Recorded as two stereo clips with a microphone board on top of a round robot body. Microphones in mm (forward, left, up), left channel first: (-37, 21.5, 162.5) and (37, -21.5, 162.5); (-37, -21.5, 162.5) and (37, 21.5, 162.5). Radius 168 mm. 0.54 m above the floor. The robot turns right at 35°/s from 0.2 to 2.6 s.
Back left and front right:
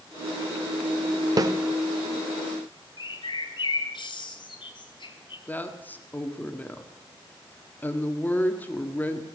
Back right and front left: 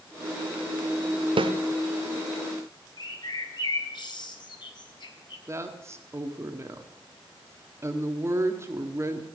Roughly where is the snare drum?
Ahead.